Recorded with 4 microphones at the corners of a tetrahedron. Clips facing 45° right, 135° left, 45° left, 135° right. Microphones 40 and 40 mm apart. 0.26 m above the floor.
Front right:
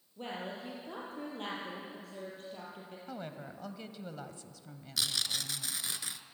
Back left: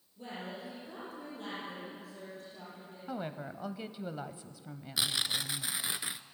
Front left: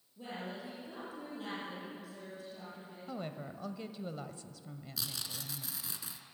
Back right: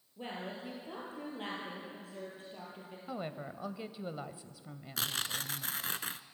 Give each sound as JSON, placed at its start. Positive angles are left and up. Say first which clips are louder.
{"t": 0.2, "sound": "a woman speaking", "louder": "front right 2 dB, back right 1 dB", "azimuth_deg": -85, "distance_m": 6.5}
{"t": 3.1, "sound": "a woman speaking", "louder": "back left 5 dB, back right 2 dB", "azimuth_deg": 180, "distance_m": 0.9}
{"t": 5.0, "sound": "tearing paper", "louder": "back left 2 dB, back right 7 dB", "azimuth_deg": -160, "distance_m": 0.7}